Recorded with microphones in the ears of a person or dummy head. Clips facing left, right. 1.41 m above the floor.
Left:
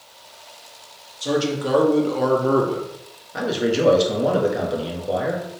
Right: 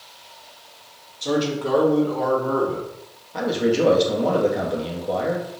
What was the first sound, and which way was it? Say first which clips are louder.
A man speaking: left 1 dB; 5° left (ahead or behind).